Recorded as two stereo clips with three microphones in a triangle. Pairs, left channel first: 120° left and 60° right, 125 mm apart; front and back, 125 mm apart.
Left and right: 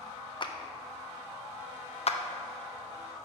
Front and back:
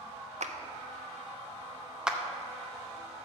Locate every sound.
0.4 s a clap: 170° left, 0.5 m
2.1 s a clap: 95° left, 0.6 m